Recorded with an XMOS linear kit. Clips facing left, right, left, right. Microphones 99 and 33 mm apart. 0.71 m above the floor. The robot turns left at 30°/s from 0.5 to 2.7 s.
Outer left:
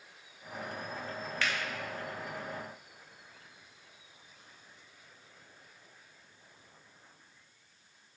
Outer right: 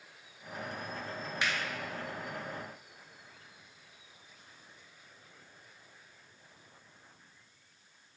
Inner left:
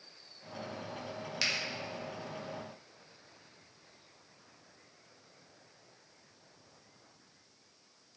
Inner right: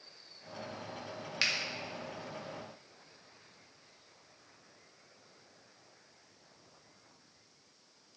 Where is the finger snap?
20° right (ahead or behind), 0.6 m.